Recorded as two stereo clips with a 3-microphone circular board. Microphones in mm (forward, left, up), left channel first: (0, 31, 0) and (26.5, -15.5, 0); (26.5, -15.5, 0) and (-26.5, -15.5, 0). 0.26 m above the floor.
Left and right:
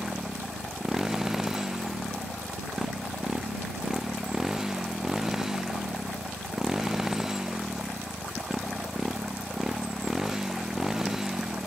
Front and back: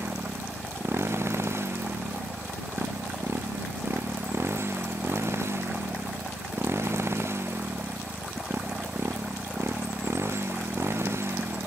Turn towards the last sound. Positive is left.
turn(degrees=-145)